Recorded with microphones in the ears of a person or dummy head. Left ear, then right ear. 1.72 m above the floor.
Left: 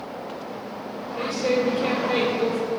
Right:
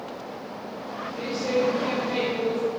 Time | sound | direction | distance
1.2 | a woman speaking | 40° left (ahead or behind) | 3.5 m